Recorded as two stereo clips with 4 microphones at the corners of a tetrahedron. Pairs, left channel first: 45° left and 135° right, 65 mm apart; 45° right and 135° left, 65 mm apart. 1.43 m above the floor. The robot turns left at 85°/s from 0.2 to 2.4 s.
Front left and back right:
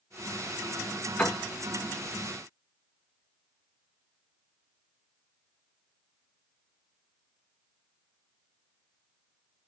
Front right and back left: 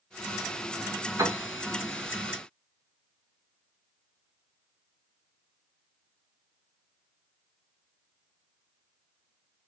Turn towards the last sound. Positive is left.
turn(degrees=10)